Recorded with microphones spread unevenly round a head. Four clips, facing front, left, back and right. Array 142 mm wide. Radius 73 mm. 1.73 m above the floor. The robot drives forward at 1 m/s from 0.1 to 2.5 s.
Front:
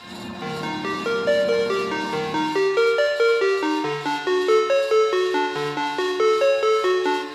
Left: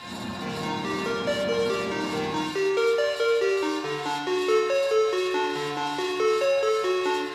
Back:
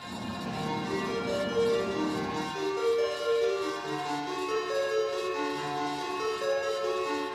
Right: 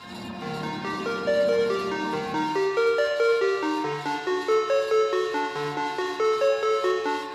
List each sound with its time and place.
0.4 s a ringtone: 5° right, 5 m; by 7.2 s 10° right, 3 m